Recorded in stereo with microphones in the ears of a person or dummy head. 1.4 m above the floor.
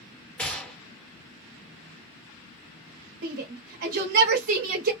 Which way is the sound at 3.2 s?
50° right (ahead or behind).